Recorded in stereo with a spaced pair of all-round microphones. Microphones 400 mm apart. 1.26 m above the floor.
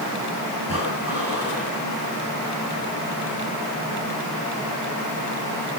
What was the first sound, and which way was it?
Breathing, 55° right (ahead or behind).